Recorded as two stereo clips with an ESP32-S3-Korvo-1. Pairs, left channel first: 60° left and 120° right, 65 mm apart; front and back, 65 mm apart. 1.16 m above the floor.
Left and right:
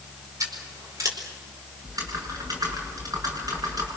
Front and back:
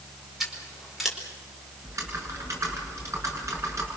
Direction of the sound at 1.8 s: 140° right.